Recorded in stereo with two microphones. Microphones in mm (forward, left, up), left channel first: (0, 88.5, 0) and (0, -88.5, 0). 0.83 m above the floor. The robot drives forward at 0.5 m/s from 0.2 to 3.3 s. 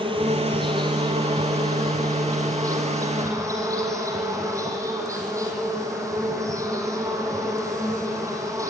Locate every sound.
0.0 s an insect: 30° right (ahead or behind), 2 m; by 8.7 s 20° right (ahead or behind), 3.5 m